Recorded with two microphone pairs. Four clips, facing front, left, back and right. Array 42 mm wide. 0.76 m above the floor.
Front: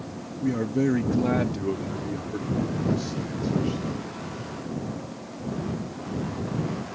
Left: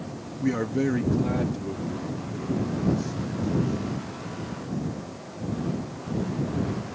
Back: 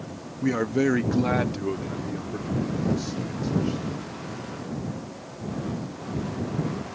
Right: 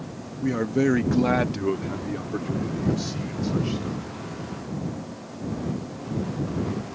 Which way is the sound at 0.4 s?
170° left.